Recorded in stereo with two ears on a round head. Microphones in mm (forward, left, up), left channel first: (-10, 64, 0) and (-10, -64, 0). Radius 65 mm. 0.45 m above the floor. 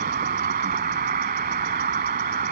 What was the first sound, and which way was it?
An insect, 60° right (ahead or behind).